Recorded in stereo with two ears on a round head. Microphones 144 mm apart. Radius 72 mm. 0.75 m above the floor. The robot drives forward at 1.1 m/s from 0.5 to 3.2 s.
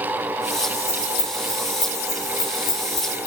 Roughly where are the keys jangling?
Left.